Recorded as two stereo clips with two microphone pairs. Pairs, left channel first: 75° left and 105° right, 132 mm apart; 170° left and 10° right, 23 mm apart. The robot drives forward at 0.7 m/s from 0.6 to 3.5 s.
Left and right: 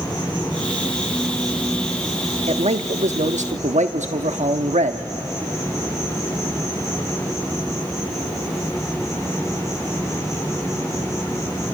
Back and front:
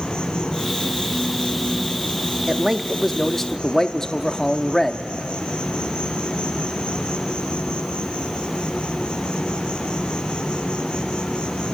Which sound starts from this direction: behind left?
An insect, at 0.0 s.